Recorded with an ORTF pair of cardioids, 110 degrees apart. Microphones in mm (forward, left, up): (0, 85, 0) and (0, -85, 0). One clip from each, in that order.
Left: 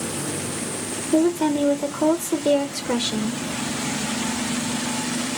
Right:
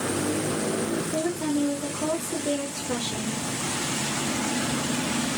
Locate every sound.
1.1 s a woman speaking: 45° left, 0.7 m